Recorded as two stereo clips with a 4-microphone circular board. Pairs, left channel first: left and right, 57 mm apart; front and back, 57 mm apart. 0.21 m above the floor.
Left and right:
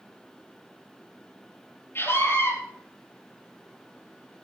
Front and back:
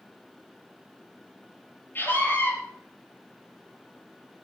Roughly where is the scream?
Ahead left.